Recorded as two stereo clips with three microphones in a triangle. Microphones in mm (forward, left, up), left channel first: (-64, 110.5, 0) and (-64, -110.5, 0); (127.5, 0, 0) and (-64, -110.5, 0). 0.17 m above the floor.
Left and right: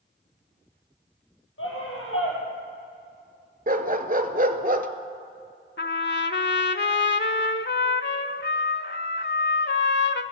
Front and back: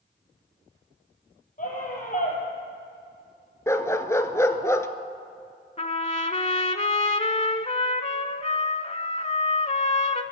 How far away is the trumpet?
About 0.5 m.